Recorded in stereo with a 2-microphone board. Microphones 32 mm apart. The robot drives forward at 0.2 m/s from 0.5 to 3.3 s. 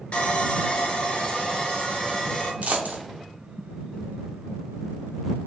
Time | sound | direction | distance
0.1 | sawing | 40° left (ahead or behind) | 0.5 m
2.6 | a dropped coin | 50° right (ahead or behind) | 0.6 m